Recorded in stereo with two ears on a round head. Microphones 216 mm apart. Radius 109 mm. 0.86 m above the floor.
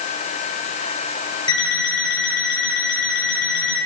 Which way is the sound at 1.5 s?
20° left (ahead or behind).